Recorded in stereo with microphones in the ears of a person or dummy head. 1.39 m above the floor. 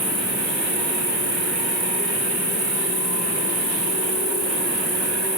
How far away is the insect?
About 2.0 m.